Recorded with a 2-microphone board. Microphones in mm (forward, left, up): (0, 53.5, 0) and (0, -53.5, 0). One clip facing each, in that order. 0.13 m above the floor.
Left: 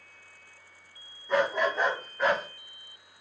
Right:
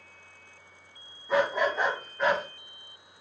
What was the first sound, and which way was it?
A dog barking, 5° right (ahead or behind).